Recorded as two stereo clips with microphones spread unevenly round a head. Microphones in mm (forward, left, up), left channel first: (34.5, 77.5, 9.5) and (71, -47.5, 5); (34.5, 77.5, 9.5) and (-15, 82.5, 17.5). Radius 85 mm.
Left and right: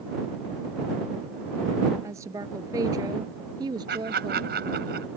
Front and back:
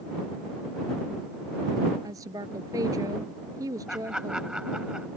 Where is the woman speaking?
150° right; by 4.5 s 140° right.